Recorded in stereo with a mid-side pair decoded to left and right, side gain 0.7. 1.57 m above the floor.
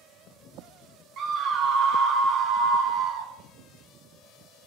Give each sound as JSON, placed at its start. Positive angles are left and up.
{"t": 1.2, "sound": "a scream", "azimuth_deg": -45, "distance_m": 0.5}